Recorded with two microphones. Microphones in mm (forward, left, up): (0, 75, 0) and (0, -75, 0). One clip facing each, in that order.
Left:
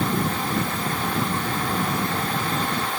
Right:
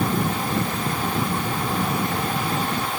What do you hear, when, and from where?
Only background noise.